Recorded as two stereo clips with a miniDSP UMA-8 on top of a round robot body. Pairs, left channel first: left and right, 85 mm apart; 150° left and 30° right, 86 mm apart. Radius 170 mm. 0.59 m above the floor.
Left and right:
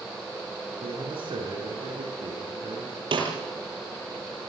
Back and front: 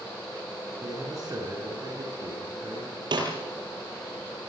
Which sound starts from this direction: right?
A man speaking, at 0.8 s.